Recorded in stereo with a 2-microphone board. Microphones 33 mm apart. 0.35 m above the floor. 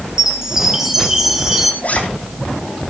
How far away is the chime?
About 2.5 m.